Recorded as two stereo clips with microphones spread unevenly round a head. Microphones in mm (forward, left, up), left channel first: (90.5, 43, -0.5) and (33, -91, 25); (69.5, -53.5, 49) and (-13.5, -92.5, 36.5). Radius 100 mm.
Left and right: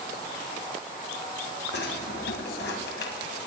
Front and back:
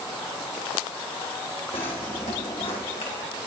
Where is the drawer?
80° left, 2.5 m.